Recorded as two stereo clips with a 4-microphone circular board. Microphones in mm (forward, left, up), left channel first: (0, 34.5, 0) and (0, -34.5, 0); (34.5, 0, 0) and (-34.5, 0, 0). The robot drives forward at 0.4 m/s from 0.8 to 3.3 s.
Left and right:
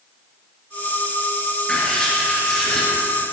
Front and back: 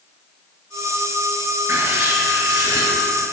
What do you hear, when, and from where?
1.7 s writing: 165° left, 2.5 m